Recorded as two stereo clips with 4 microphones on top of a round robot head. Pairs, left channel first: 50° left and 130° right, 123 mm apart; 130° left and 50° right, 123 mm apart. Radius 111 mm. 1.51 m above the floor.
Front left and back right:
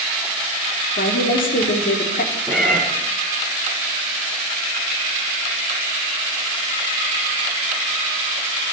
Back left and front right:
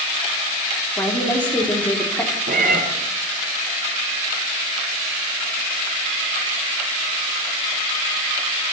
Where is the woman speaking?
55° left, 3.5 m.